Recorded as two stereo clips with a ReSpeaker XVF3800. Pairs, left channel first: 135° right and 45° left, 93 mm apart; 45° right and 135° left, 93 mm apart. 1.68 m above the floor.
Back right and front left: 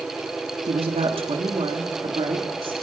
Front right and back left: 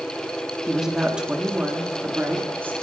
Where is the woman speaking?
50° left, 3 m; by 2.7 s 65° left, 3.5 m.